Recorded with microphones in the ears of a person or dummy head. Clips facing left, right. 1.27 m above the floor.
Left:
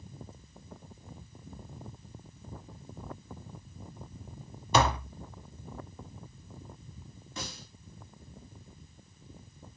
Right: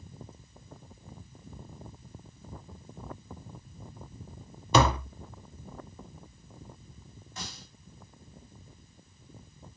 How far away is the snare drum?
About 4 m.